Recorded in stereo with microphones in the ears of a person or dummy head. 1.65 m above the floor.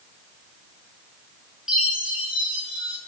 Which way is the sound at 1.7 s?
5° right (ahead or behind).